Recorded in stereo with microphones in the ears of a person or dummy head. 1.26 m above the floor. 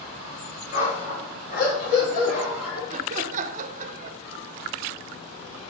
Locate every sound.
0.7 s a dog barking: 65° left (ahead or behind), 4 m; by 2.8 s 50° left (ahead or behind), 3.5 m
2.9 s laughter: 40° right (ahead or behind), 0.8 m